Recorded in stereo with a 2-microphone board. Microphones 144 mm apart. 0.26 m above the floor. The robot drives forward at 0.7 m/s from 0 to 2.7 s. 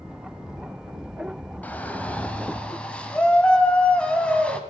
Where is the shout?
10° left (ahead or behind), 1.4 m.